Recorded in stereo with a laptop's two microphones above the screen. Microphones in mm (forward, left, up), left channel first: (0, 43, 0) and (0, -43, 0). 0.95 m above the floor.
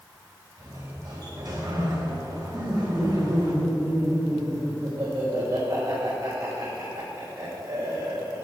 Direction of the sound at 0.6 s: 45° right (ahead or behind).